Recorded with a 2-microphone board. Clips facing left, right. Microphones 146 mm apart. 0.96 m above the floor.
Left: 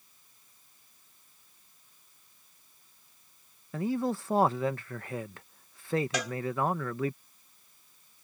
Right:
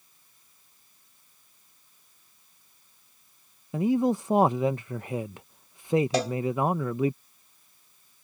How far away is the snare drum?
I don't hear a snare drum.